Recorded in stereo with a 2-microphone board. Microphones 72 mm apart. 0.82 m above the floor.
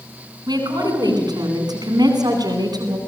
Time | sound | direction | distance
0.5 | a woman speaking | 80° right | 9 m